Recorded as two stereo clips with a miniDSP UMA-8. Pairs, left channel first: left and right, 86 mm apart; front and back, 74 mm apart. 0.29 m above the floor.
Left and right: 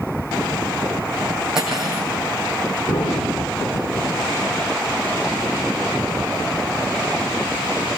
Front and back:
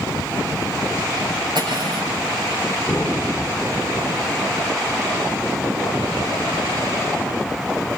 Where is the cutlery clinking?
175° right, 8 m.